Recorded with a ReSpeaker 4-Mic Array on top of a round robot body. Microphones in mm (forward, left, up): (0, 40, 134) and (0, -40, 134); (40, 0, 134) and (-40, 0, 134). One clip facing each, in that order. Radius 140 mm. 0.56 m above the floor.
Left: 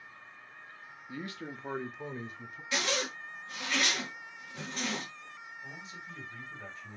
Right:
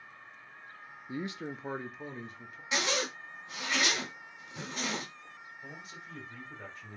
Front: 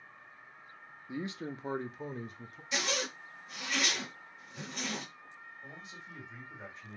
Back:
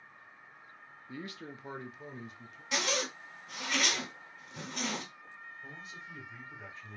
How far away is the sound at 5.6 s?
About 2.5 m.